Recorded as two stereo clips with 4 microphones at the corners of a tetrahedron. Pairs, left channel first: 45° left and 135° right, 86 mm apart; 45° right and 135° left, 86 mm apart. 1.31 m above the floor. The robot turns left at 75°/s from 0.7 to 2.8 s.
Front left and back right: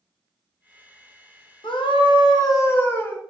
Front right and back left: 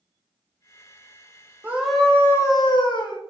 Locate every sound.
1.6 s a scream: 65° left, 0.9 m; by 3.2 s 20° right, 0.9 m